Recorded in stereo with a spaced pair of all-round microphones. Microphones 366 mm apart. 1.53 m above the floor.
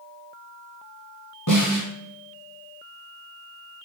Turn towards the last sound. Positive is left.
turn(degrees=65)  # may be behind; listen again after turning